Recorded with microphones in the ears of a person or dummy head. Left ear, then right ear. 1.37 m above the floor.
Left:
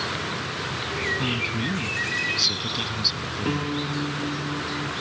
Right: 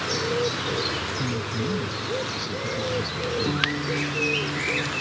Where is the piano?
20° left (ahead or behind).